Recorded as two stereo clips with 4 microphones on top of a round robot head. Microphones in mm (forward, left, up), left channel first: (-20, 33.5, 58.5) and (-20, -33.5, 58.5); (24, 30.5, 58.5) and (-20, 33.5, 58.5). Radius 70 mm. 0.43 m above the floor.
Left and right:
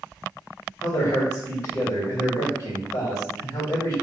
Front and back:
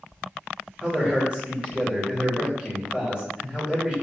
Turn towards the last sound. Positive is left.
turn(degrees=120)